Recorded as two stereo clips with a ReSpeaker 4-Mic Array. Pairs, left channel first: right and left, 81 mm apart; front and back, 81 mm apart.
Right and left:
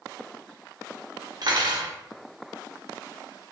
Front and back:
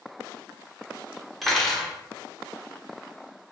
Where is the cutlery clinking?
90° left, 0.5 m.